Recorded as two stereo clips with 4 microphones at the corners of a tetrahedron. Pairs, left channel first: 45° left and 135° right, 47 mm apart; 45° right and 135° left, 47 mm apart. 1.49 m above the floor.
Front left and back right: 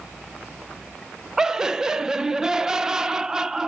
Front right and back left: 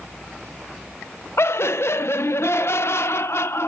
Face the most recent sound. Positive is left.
turn(degrees=-55)